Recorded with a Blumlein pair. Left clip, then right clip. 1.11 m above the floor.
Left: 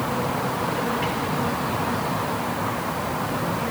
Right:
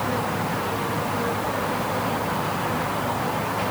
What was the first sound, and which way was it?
Only background noise.